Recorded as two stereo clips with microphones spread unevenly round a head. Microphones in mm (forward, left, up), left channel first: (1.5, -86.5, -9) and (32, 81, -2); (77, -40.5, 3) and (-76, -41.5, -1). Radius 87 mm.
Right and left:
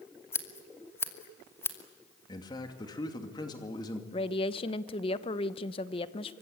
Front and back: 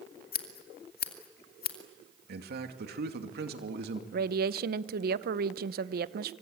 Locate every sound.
0.3 s scissors: 25° right, 2.5 m
2.3 s a man speaking: 165° right, 2.5 m
4.1 s a woman speaking: 160° right, 0.9 m